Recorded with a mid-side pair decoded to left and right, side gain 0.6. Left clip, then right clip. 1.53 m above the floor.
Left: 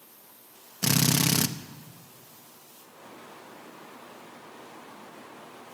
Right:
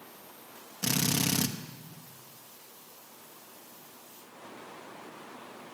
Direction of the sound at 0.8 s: 35° left.